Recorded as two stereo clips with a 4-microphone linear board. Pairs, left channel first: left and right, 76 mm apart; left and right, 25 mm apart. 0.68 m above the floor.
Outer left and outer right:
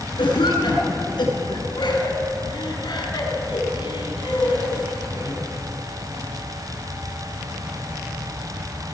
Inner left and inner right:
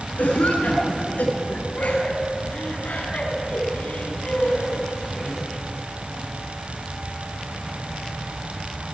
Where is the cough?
80° left, 8 m.